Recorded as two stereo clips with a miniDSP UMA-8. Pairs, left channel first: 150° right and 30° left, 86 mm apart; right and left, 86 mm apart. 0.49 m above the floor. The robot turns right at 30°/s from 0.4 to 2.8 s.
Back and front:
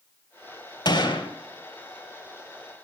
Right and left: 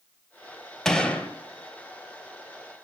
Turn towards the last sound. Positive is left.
turn(degrees=-115)